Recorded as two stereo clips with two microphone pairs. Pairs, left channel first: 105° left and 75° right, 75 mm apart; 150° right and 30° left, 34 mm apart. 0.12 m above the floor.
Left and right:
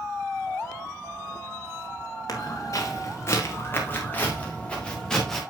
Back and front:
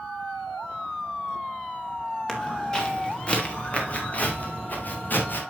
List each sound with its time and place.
2.3 s footsteps: 140° left, 4 m; by 5.4 s 170° right, 4 m